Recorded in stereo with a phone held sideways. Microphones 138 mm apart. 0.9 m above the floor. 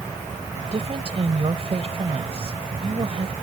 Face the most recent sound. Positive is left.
turn(degrees=-50)  # may be behind; listen again after turning